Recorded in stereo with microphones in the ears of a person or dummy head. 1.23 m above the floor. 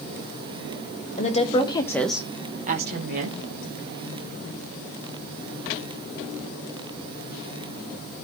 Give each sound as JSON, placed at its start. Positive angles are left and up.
{"t": 1.2, "sound": "a woman speaking", "side_deg": 40, "distance_m": 1.9}